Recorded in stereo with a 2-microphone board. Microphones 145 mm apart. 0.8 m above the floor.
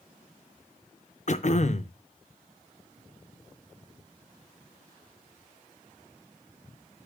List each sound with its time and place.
1.3 s throat clearing: 50° left (ahead or behind), 0.5 m